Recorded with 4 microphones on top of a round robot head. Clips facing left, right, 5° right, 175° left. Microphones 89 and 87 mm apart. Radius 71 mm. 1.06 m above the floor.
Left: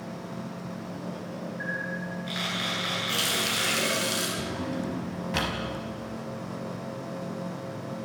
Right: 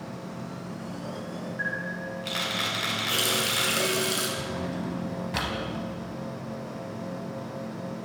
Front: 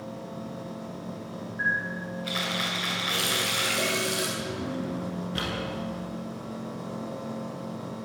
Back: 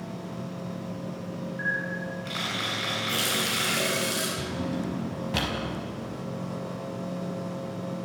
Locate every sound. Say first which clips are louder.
1.6 s a camera shutter: right 1 dB, front 3 dB; 90° right, 9 m
3.1 s a running tap: right 3 dB, even; 130° right, 9 m
4.4 s a drawer: even, back 1 dB; 175° right, 5 m